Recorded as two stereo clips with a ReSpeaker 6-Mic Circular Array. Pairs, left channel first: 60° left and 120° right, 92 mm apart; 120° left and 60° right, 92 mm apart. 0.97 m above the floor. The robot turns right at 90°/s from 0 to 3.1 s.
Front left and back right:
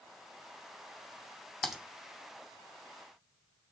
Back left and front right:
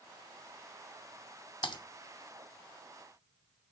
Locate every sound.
1.6 s typing on a keyboard: 145° left, 1.0 m; by 1.8 s 160° left, 1.0 m